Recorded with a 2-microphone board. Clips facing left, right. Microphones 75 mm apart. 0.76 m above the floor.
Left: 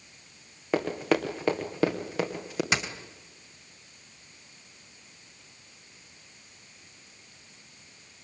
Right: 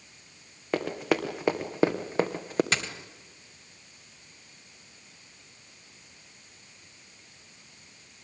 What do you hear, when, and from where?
0.7 s running footsteps: 5° left (ahead or behind), 3 m; by 2.6 s 40° right (ahead or behind), 2.5 m
2.7 s a dropped coin: 10° left (ahead or behind), 2 m